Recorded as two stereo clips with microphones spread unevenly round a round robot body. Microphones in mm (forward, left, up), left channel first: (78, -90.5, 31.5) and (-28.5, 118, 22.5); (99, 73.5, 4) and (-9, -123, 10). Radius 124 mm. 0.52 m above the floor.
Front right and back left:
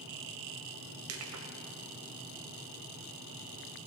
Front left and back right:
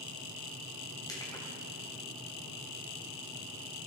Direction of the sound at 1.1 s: 135° left.